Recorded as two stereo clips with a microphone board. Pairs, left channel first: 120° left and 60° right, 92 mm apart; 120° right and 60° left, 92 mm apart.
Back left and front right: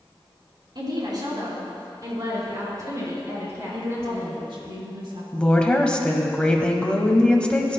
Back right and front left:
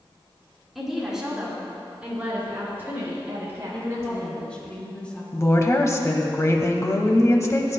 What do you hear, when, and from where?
0.8 s a woman speaking: 30° right, 3.5 m; by 4.3 s straight ahead, 5.5 m
3.7 s a woman speaking: 45° right, 3.5 m
5.3 s a woman speaking: 165° right, 1.2 m